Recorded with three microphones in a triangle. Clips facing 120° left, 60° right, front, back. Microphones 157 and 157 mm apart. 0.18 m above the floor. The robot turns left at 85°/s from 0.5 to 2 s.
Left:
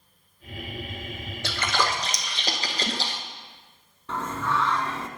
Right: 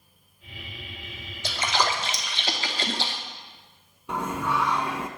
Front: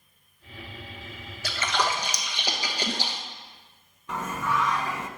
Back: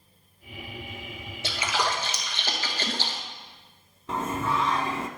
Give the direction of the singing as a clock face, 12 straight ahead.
4 o'clock.